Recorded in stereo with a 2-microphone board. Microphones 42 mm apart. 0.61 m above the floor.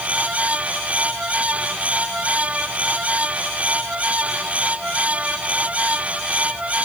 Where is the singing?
No singing in this recording.